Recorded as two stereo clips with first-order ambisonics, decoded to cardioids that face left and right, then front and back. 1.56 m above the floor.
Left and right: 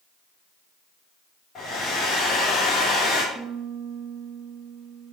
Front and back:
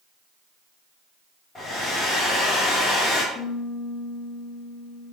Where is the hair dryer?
55° left, 1.2 m.